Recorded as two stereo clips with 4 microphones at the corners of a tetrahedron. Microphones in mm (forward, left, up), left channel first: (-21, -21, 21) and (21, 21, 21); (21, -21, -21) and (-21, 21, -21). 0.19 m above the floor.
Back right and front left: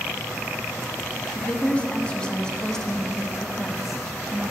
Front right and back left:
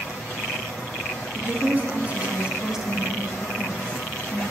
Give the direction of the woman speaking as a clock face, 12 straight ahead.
6 o'clock.